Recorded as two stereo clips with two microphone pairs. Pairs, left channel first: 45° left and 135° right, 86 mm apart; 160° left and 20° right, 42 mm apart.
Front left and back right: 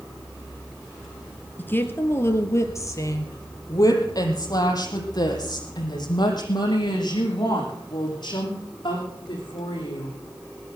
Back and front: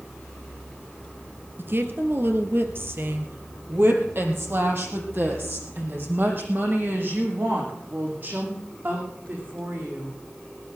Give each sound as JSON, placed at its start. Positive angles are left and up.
{"t": 1.6, "sound": "a woman speaking", "azimuth_deg": -15, "distance_m": 1.8}